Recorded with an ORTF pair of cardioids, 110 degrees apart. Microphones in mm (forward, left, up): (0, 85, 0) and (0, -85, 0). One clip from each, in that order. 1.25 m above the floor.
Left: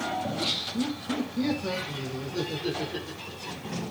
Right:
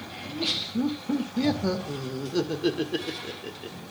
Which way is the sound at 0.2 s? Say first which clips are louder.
Even; 10° right.